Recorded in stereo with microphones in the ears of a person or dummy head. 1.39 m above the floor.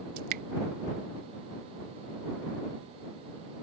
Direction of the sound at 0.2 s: 50° right (ahead or behind).